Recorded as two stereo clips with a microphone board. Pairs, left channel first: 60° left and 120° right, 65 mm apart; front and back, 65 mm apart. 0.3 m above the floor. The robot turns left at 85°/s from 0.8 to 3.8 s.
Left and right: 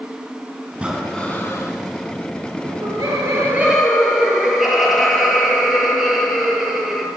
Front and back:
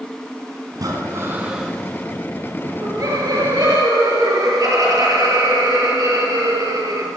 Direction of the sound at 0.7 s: 170° left.